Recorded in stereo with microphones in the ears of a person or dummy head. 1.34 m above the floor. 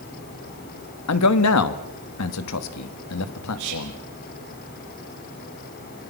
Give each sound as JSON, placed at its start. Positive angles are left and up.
{"t": 1.1, "sound": "a man speaking", "side_deg": 85, "distance_m": 1.9}
{"t": 3.6, "sound": "whispering", "side_deg": -55, "distance_m": 8.5}